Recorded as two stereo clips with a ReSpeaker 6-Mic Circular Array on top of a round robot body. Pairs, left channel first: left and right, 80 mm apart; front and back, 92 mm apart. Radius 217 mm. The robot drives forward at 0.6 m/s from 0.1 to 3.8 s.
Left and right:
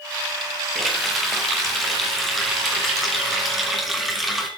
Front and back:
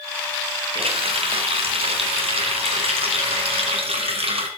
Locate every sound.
0.8 s a running tap: straight behind, 3.5 m